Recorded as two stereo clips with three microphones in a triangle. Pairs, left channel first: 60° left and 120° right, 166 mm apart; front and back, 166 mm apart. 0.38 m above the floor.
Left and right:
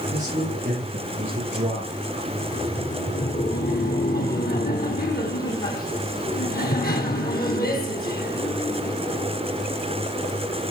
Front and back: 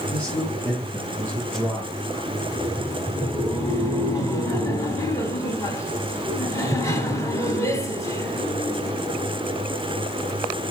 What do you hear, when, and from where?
0.1 s a man speaking: 80° right, 8 m
2.3 s laughter: 70° left, 3 m